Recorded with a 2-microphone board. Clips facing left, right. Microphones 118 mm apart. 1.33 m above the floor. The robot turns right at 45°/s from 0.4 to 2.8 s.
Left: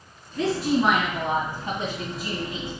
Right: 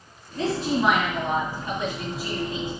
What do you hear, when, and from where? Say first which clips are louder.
0.3 s a woman speaking: left 2 dB; 35° right, 2.0 m; by 2.7 s 70° left, 2.0 m